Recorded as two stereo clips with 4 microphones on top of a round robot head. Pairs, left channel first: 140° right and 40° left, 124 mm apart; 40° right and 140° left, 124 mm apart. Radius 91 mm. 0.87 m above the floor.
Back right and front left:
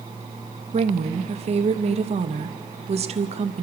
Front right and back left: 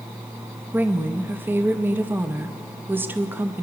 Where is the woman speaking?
70° left, 0.7 m.